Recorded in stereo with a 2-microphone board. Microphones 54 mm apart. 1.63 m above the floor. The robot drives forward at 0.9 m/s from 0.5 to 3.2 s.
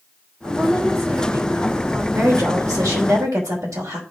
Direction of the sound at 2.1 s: 75° right (ahead or behind).